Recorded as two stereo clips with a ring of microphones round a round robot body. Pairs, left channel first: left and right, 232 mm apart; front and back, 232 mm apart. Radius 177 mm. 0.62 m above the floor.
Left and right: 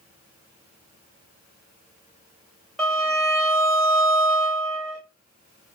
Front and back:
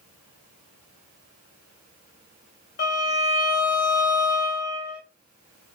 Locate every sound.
2.8 s a violin: straight ahead, 1.1 m